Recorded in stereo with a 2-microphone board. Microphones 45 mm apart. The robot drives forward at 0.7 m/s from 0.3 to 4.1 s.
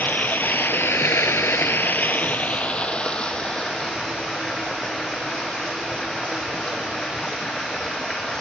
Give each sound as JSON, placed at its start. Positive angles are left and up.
{"t": 0.0, "sound": "running water", "side_deg": 45, "distance_m": 0.9}